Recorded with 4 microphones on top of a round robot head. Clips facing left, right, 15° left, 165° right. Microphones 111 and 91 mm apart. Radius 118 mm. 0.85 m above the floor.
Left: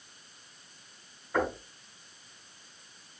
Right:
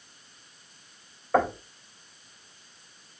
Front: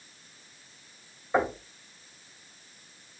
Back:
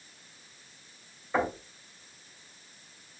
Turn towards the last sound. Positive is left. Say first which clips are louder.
# right 6 dB, front 2 dB
turn(degrees=-65)